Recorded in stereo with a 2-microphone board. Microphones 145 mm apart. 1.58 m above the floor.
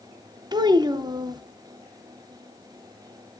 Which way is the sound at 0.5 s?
30° right (ahead or behind).